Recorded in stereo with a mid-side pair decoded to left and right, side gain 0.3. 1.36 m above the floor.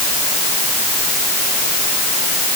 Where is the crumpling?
No crumpling in this recording.